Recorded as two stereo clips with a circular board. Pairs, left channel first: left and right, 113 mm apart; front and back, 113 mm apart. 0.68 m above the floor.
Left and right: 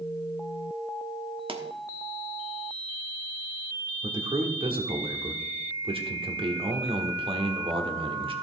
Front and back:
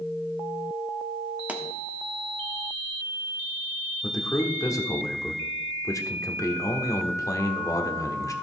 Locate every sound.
1.5 s a pop: 105° right, 1.2 m
4.0 s a man speaking: 60° right, 1.5 m